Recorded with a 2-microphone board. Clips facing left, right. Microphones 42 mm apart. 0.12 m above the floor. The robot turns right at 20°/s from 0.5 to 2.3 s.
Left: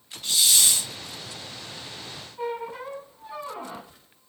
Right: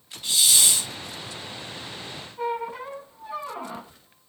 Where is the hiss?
15° right (ahead or behind), 2.5 m; by 0.9 s 20° right (ahead or behind), 2.5 m.